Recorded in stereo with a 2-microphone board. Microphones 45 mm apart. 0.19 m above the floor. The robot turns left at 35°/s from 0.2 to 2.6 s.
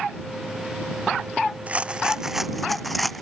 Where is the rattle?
150° right; by 3.2 s 175° left.